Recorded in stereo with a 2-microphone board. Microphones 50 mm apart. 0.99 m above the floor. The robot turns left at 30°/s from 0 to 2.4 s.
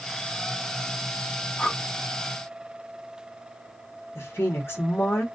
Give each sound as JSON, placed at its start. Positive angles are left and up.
{"t": 1.6, "sound": "breathing", "side_deg": 25, "distance_m": 2.0}
{"t": 4.2, "sound": "a woman speaking", "side_deg": 55, "distance_m": 1.6}